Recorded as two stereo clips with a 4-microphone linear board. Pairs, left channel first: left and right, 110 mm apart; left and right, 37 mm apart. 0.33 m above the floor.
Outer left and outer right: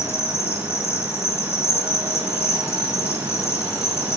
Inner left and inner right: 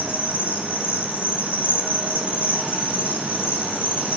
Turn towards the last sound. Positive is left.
turn(degrees=65)  # may be behind; listen again after turning